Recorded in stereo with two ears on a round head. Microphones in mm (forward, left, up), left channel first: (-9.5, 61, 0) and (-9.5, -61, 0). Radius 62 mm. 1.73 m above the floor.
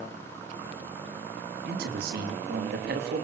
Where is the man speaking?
85° right, 3.5 m.